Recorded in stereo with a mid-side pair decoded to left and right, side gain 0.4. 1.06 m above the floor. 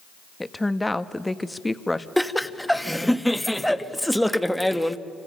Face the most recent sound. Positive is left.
turn(degrees=5)